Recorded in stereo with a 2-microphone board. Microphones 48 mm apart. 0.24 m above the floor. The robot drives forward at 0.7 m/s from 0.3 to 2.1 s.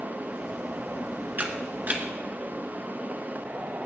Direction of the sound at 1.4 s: 40° right (ahead or behind).